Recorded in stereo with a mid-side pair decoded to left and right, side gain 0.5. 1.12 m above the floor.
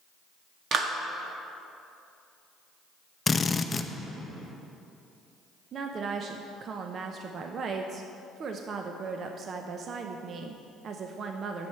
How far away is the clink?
No clink in this recording.